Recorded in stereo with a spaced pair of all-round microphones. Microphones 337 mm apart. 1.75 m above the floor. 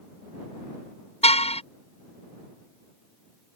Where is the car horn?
20° left (ahead or behind).